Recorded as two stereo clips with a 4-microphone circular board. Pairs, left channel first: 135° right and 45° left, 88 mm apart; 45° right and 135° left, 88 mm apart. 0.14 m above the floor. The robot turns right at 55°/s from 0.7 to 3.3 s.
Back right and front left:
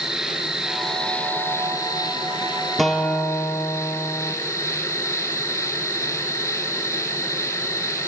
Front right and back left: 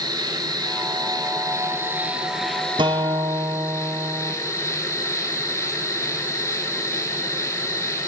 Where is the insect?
125° left, 0.9 m; by 8.1 s 90° right, 0.9 m.